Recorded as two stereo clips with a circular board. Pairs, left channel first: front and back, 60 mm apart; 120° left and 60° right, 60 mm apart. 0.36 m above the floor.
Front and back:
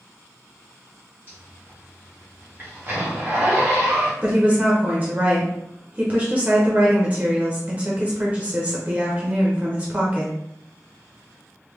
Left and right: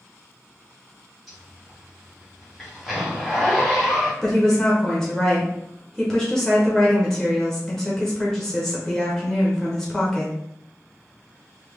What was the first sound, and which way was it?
A zipper, 145° right.